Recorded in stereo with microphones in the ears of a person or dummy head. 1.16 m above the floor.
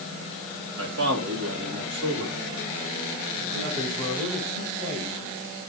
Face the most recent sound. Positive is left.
turn(degrees=-40)  # may be behind; listen again after turning